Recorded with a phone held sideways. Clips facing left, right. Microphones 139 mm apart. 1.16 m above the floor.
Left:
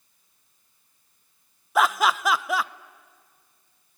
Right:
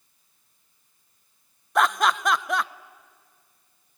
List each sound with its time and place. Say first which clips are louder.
1.8 s laughter: even; 5° left (ahead or behind), 0.6 m